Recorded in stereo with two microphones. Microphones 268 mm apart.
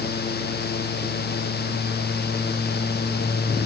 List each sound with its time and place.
Only background noise.